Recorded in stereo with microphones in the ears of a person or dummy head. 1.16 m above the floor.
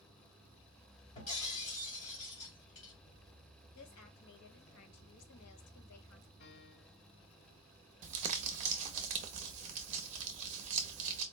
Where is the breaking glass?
35° left (ahead or behind), 2 m.